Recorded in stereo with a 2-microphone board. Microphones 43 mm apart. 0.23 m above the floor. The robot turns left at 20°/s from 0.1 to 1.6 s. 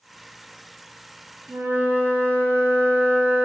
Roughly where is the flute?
Right.